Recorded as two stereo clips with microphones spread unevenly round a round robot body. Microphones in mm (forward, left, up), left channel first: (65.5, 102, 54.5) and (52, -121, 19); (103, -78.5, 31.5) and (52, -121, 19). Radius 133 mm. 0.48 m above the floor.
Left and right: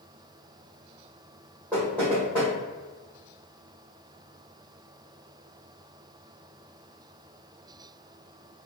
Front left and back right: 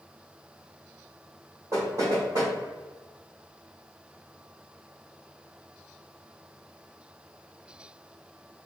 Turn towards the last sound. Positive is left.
turn(degrees=175)